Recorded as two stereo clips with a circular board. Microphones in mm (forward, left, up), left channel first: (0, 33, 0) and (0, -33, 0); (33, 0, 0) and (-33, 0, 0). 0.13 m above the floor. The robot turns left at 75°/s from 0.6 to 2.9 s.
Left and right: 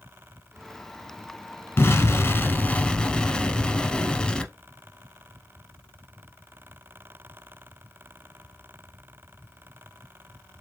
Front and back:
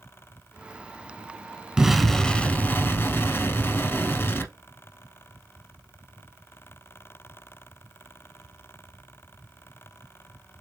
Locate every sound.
1.8 s an explosion: 105° left, 0.8 m; by 4.5 s 20° left, 0.8 m